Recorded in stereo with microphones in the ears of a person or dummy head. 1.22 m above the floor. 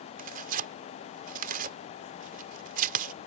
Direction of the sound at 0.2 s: 50° right (ahead or behind).